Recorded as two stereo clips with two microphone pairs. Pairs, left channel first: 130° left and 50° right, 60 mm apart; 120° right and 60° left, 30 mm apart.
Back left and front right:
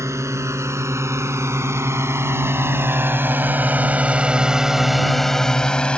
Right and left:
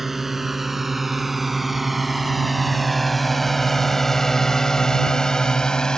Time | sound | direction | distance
0.0 | a drone | 20° right | ?